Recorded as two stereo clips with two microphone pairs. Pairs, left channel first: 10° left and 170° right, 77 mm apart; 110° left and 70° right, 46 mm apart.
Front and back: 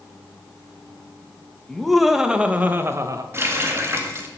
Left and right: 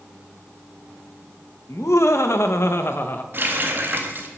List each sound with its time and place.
1.7 s laughter: 100° left, 1.5 m; by 3.2 s 150° left, 1.2 m
3.3 s a running tap: 110° right, 1.7 m